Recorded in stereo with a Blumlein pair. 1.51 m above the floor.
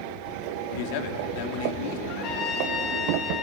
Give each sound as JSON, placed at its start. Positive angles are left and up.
{"t": 0.7, "sound": "a man speaking", "azimuth_deg": 45, "distance_m": 3.5}
{"t": 2.1, "sound": "a trumpet", "azimuth_deg": 40, "distance_m": 4.5}